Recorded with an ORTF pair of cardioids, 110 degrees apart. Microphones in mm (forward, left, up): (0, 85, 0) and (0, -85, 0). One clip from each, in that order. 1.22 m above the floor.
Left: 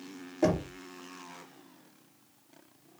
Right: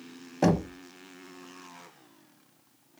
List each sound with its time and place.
0.4 s knocking: 40° right, 0.7 m